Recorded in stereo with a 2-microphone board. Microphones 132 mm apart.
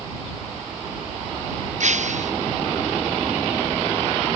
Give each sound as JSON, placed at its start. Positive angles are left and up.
{"t": 1.8, "sound": "breaking glass", "side_deg": -65}